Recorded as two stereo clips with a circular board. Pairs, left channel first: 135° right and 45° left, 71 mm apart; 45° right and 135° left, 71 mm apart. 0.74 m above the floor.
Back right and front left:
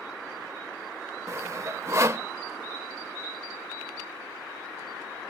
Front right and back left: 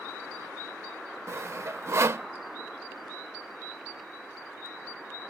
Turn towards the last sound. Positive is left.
turn(degrees=90)